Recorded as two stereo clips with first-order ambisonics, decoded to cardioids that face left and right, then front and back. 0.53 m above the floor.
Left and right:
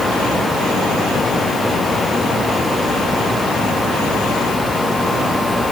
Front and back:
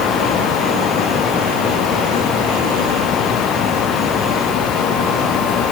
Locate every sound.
Only background noise.